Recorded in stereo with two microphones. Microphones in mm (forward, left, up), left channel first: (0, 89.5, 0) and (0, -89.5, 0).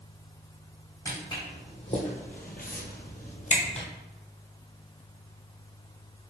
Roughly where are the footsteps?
Left.